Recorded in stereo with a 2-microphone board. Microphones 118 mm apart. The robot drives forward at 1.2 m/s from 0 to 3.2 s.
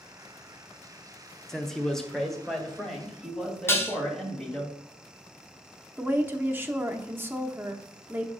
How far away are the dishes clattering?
About 1.1 m.